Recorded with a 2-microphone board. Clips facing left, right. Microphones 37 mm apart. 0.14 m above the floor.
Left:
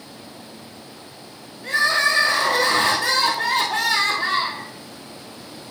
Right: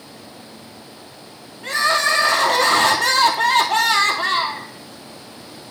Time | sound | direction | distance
1.6 | crying | 75° right (ahead or behind) | 1.5 m